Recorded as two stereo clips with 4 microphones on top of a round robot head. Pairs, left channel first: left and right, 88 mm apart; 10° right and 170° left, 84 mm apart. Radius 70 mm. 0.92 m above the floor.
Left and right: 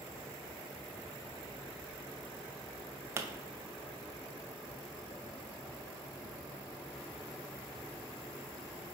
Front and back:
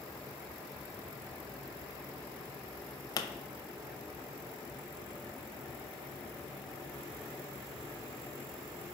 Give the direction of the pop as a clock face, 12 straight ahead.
1 o'clock.